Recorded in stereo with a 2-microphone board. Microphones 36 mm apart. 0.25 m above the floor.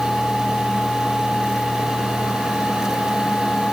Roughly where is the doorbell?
No doorbell in this recording.